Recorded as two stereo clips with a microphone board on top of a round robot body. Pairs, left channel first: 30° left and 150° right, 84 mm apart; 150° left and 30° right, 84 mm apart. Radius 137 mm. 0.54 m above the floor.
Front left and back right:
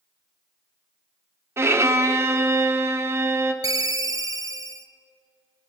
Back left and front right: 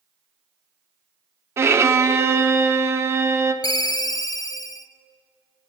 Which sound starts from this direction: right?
A violin, at 1.6 s.